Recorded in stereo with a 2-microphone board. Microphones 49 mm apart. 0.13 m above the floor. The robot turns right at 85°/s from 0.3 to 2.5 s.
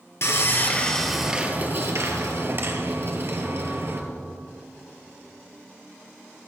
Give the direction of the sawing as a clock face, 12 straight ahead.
8 o'clock.